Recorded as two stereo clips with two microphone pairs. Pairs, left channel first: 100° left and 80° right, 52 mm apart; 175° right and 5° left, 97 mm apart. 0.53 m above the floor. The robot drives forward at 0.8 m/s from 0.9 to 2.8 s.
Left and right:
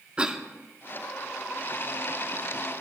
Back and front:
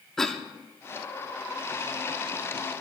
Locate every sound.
0.2 s a cough: 100° right, 1.0 m